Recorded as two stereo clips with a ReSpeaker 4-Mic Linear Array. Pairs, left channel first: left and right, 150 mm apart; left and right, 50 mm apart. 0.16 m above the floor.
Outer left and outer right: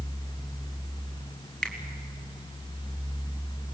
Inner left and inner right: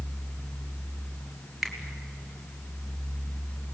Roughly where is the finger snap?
Centre.